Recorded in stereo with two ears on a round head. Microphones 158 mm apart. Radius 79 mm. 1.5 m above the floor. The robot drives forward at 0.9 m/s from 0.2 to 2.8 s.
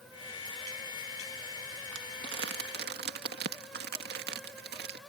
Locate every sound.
1.9 s crumpling: 80° right; by 5.0 s 65° right (ahead or behind)